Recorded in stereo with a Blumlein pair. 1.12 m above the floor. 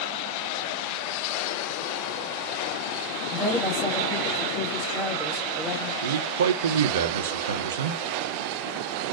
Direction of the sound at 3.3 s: Straight ahead.